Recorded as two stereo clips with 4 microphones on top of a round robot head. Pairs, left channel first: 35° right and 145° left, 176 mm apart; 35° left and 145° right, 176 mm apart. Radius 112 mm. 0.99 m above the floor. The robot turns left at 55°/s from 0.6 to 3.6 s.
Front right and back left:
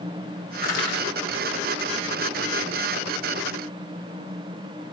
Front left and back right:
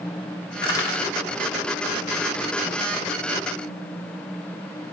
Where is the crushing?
25° right, 1.8 m; by 1.1 s 50° right, 1.8 m.